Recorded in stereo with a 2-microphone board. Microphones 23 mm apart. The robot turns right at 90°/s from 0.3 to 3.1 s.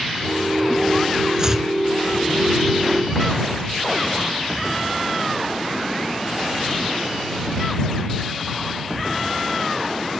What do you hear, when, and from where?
1.4 s chopping: 35° right (ahead or behind); by 1.7 s 10° right (ahead or behind)